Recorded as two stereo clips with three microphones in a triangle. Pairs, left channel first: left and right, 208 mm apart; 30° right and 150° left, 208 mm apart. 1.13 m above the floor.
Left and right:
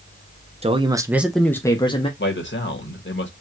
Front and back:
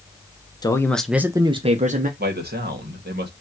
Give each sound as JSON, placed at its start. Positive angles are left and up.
{"t": 0.6, "sound": "a man speaking", "azimuth_deg": -80, "distance_m": 0.7}
{"t": 2.2, "sound": "a man speaking", "azimuth_deg": 115, "distance_m": 1.4}